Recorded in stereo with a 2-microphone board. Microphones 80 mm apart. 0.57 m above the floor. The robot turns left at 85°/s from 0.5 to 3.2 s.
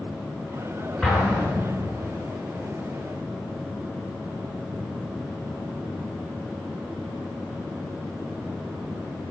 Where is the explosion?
15° left (ahead or behind), 7 m; by 2.1 s 75° right (ahead or behind), 7 m.